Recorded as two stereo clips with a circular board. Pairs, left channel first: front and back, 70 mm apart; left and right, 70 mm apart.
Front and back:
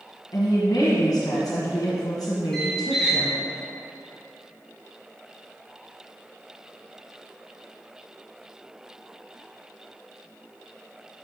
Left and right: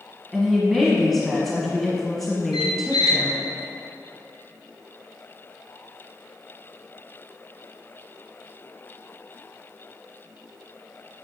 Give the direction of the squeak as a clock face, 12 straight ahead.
9 o'clock.